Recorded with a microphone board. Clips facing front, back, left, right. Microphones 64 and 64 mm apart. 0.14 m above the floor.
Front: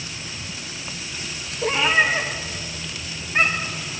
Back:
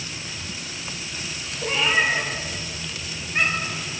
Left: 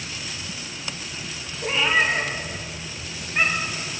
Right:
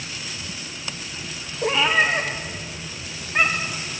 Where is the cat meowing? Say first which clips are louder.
Front 2 dB, right 2 dB; 65° right, 1.9 m.